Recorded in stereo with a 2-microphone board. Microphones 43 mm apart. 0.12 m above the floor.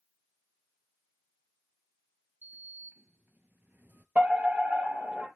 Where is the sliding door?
50° right (ahead or behind), 0.5 m.